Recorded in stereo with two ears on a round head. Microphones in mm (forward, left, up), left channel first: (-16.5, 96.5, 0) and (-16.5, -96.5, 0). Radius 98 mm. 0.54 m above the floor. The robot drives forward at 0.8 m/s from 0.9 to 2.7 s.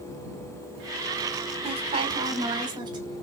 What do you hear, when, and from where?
1.6 s a woman speaking: 30° right (ahead or behind), 1.9 m; by 3.2 s 20° right (ahead or behind), 2.5 m